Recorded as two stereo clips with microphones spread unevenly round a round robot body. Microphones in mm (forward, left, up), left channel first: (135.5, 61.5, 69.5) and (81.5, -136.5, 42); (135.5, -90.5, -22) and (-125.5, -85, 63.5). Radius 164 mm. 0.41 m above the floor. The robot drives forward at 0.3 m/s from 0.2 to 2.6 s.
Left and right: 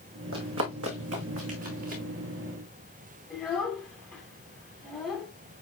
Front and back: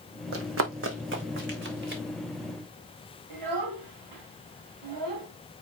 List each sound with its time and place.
0.3 s running footsteps: 150° right, 1.7 m; by 2.0 s 135° right, 2.5 m
3.3 s a child speaking: 155° left, 1.8 m